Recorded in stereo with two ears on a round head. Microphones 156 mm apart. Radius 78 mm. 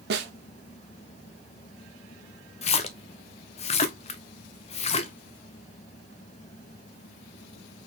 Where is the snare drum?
65° right (ahead or behind), 1.2 m.